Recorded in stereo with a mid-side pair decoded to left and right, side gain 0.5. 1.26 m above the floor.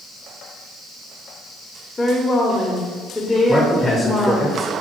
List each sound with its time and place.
2.0 s a woman speaking: 20° left, 0.6 m
3.5 s a man speaking: 15° left, 0.6 m